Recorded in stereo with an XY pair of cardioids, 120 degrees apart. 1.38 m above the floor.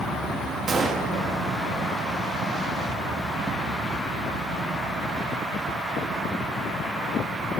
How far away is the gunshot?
About 2.5 m.